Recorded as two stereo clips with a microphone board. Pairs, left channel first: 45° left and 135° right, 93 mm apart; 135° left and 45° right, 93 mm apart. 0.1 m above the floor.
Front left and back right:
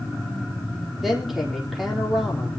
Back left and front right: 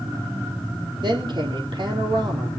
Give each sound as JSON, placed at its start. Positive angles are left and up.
{"t": 1.0, "sound": "a woman speaking", "azimuth_deg": -45, "distance_m": 4.0}